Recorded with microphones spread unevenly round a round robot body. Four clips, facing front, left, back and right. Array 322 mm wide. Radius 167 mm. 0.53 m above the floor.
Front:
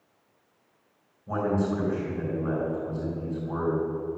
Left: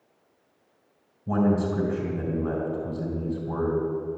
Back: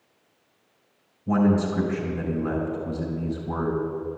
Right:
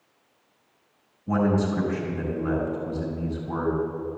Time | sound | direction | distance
1.3 | a man speaking | 145° left | 4 m